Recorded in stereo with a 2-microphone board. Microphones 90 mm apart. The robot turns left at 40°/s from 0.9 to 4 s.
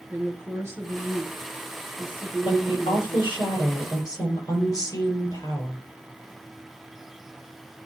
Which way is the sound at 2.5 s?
105° left.